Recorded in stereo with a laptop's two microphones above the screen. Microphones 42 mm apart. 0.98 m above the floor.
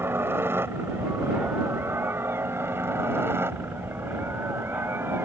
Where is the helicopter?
75° right (ahead or behind).